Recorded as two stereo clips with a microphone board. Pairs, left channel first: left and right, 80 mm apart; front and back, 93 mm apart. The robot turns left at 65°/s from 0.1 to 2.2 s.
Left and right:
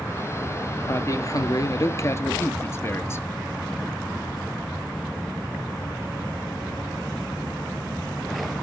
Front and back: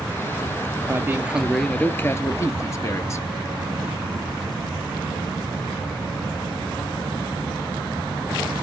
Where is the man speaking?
130° left, 1.5 m; by 3.3 s 45° left, 1.5 m.